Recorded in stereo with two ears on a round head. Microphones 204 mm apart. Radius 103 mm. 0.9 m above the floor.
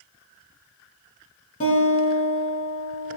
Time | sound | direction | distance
1.6 | a guitar | 35° left (ahead or behind) | 3.5 m